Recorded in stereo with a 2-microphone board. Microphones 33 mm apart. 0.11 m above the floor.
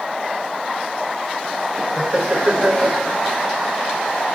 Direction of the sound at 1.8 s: 20° right (ahead or behind).